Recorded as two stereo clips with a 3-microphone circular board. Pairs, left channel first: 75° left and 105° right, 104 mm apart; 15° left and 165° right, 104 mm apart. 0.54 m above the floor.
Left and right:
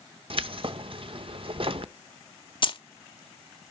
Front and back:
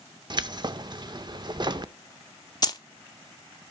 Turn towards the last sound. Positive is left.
turn(degrees=55)